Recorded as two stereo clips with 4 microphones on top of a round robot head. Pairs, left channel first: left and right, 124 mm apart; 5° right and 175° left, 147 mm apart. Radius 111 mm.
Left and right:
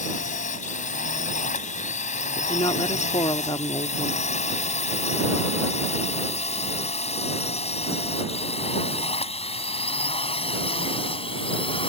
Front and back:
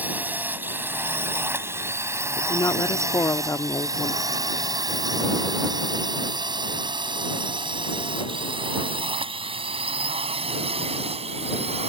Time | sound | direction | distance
0.0 | a drone | 100° left | ?
2.4 | a woman speaking | 55° left | ?